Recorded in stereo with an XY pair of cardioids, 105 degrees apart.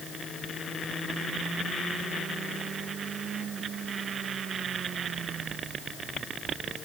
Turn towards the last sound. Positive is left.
No sound to turn to.